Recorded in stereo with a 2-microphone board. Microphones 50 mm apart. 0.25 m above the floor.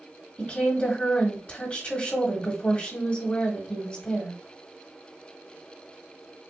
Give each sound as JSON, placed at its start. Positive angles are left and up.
{"t": 0.4, "sound": "a woman speaking", "side_deg": 25, "distance_m": 1.4}